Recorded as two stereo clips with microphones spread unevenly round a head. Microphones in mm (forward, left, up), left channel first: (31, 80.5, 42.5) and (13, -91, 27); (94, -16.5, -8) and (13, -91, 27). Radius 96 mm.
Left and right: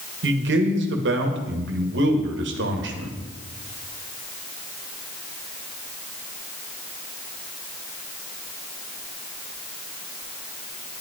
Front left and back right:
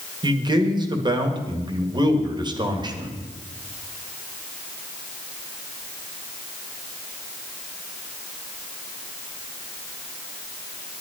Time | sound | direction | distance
0.2 | a man speaking | 85° right | 1.8 m